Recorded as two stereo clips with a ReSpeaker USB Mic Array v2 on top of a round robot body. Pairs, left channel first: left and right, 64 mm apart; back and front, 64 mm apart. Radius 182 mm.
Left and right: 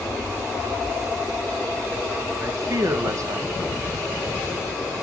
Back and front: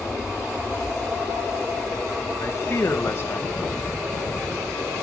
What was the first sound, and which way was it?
A man speaking, 130° right.